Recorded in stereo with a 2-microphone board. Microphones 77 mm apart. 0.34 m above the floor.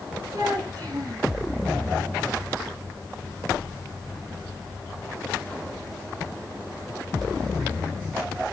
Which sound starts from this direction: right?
A child speaking, at 0.3 s.